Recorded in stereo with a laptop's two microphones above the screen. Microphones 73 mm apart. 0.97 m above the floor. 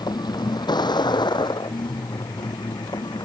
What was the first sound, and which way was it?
A vehicle, 70° left (ahead or behind).